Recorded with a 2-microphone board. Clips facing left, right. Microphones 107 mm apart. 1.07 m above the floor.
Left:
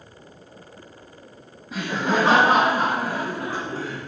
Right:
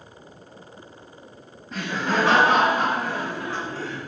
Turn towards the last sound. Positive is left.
turn(degrees=45)  # may be behind; listen again after turning